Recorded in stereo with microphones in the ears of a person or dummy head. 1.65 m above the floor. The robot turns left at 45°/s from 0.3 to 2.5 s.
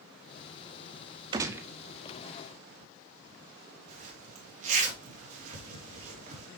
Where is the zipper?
40° right (ahead or behind), 2.5 m.